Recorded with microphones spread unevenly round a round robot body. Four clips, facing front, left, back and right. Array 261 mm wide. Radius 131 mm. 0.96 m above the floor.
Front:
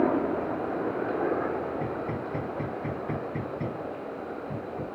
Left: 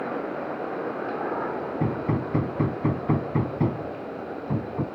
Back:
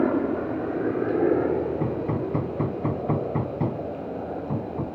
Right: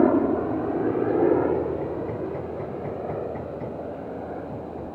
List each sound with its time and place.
0.0 s a helicopter: 100° right; by 5.0 s 155° right
1.8 s hammering: 115° left